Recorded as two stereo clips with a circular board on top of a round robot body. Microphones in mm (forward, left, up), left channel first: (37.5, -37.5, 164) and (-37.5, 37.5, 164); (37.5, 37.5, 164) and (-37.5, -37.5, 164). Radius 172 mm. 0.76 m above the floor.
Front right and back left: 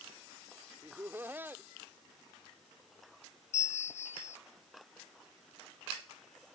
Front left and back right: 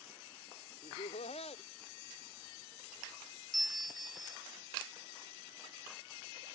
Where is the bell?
45° right.